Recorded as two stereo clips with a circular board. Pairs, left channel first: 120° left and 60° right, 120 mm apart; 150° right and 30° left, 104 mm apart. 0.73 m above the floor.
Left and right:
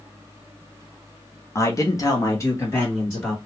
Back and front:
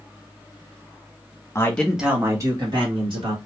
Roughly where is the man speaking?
Behind.